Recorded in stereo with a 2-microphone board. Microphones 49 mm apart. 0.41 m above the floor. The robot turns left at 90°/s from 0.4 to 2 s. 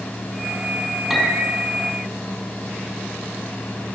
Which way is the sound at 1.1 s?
Straight behind.